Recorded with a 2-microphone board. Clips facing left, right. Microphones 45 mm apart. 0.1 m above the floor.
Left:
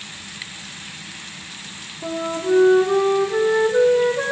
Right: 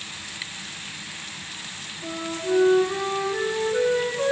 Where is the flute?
35° left (ahead or behind), 5 m.